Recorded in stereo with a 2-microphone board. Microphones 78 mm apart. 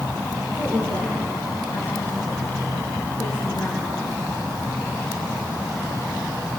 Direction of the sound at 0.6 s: 50° left (ahead or behind).